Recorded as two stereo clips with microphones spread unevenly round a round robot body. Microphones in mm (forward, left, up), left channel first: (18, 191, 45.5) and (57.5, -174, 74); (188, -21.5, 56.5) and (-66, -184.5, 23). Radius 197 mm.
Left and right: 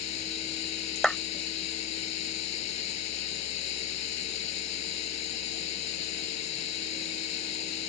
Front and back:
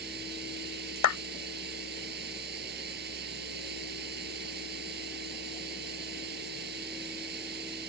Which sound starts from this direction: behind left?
Running water, at 0.0 s.